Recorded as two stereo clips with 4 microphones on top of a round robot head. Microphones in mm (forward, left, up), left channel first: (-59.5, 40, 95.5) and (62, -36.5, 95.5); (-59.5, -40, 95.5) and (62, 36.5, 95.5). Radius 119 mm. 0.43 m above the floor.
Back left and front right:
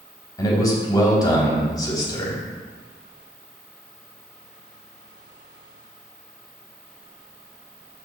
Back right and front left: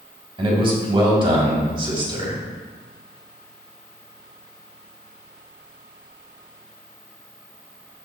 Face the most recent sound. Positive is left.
turn(degrees=85)